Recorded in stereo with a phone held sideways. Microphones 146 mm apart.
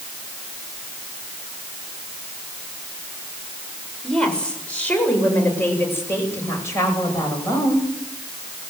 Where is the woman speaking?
5° left (ahead or behind), 6.5 m; by 7.8 s 25° left (ahead or behind), 9.5 m.